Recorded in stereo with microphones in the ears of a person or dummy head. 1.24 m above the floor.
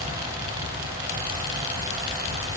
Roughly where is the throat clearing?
I don't hear throat clearing.